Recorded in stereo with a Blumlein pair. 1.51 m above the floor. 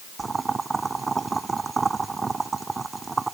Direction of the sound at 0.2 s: 15° right.